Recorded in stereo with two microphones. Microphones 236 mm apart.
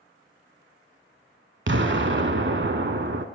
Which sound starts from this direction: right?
An explosion, at 1.7 s.